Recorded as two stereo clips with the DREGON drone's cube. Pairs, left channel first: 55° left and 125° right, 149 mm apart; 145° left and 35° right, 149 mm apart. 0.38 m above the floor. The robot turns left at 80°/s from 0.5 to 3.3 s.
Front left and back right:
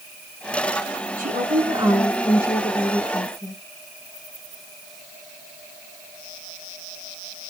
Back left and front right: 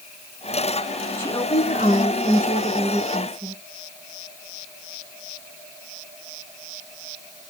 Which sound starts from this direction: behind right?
A woman speaking, at 1.2 s.